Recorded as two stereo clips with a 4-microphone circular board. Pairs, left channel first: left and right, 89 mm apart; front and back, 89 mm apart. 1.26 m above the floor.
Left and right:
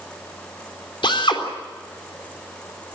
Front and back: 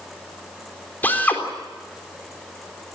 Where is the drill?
70° left, 3.5 m.